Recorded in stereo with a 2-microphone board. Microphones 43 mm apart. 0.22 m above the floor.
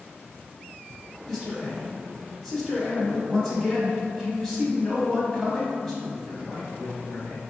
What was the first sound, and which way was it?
A man speaking, 5° left (ahead or behind).